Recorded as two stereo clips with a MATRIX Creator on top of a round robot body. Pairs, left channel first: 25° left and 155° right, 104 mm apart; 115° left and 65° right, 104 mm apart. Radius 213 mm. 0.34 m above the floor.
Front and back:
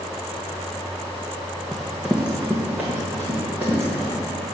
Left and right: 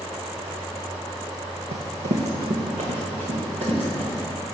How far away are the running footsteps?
About 0.9 m.